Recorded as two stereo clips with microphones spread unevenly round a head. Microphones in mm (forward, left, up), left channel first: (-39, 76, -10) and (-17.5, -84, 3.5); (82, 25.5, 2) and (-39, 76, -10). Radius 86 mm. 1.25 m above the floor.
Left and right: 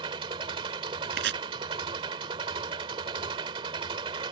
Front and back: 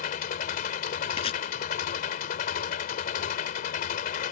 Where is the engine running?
20° right.